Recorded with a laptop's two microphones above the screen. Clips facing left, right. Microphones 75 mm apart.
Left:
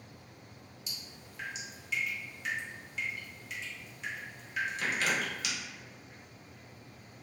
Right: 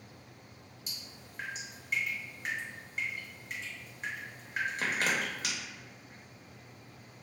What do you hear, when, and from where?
0.9 s dripping: 40° right (ahead or behind), 0.6 m